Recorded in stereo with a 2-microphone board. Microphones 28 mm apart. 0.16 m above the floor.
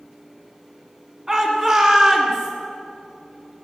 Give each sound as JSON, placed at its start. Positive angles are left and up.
{"t": 1.3, "sound": "a shout", "side_deg": -25, "distance_m": 1.7}